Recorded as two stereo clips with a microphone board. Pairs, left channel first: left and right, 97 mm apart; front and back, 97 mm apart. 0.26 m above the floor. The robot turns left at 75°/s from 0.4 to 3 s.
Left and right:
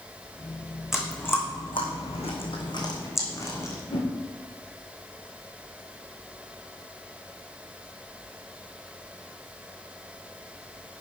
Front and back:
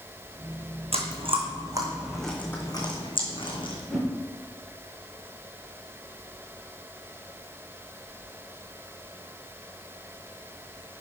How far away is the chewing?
About 3 m.